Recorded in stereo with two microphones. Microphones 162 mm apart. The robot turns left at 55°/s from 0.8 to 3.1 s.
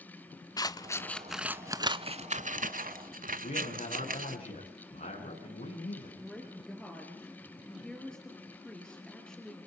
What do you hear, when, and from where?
0.6 s scissors: 25° left (ahead or behind), 0.5 m; by 4.4 s 60° right (ahead or behind), 0.5 m
3.4 s a man speaking: 65° left (ahead or behind), 8.5 m
6.2 s a woman speaking: 5° left (ahead or behind), 3 m